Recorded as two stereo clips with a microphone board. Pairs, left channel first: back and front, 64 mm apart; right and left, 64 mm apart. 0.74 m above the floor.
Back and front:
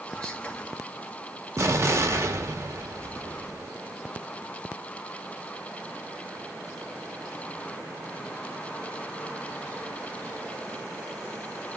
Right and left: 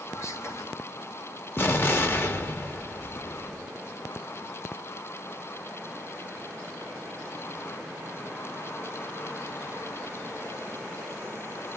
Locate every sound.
0.1 s whispering: 110° right, 1.0 m
1.6 s an explosion: 40° right, 0.7 m